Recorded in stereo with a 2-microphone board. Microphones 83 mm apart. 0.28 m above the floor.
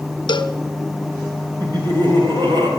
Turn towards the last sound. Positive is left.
turn(degrees=-60)  # may be behind; listen again after turning